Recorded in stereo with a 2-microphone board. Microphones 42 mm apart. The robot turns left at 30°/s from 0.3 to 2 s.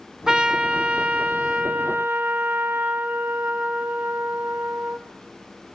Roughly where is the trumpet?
Ahead.